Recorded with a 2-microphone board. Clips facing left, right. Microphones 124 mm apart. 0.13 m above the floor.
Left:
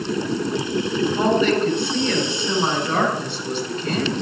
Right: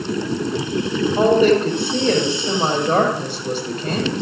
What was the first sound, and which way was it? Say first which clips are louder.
A woman speaking: right 6 dB; 55° right (ahead or behind).